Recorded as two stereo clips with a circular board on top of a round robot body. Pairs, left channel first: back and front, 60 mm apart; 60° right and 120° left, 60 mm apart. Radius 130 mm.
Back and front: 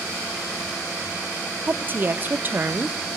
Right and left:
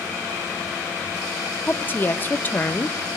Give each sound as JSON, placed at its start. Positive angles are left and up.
{"t": 1.7, "sound": "a woman speaking", "azimuth_deg": -25, "distance_m": 0.9}